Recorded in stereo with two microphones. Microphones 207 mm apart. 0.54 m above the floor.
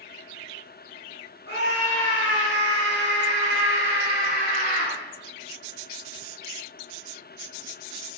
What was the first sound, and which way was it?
A scream, 80° left.